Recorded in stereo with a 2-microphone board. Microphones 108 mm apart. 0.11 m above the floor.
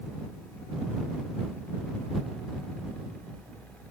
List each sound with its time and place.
Only background noise.